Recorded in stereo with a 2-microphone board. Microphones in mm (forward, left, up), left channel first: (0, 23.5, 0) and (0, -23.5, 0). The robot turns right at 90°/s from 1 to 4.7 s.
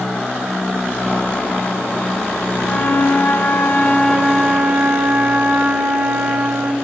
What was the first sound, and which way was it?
A flute, 40° left.